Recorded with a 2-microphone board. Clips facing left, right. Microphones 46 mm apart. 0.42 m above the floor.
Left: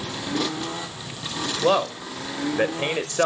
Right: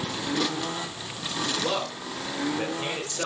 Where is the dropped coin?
I don't hear a dropped coin.